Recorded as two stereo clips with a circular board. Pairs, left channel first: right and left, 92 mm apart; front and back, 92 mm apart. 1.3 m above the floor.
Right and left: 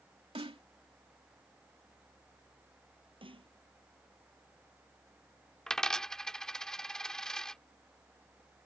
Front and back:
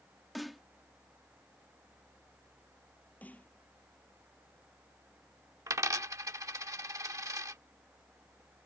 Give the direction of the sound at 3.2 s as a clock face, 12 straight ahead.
10 o'clock.